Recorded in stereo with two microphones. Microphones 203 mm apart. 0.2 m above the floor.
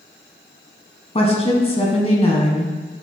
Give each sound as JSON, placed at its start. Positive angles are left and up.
{"t": 1.1, "sound": "a woman speaking", "side_deg": 30, "distance_m": 1.4}